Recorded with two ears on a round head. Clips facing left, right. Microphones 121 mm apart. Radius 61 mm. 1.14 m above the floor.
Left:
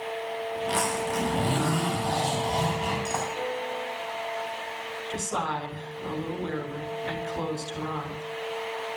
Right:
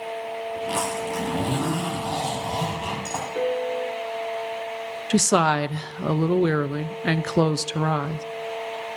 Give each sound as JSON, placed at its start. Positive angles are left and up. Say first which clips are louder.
{"t": 0.6, "sound": "a zipper", "louder": "even", "side_deg": -5, "distance_m": 9.0}
{"t": 3.4, "sound": "a piano", "louder": "right 7 dB", "side_deg": -60, "distance_m": 2.5}
{"t": 5.1, "sound": "a woman speaking", "louder": "right 11 dB", "side_deg": -80, "distance_m": 0.8}